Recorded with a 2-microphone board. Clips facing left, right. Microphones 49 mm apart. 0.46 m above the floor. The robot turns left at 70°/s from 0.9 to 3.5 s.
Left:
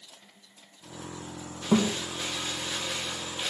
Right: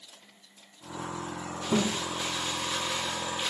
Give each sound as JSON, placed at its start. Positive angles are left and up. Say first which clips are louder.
{"t": 1.7, "sound": "a thud", "louder": "left 3 dB", "side_deg": 45, "distance_m": 2.5}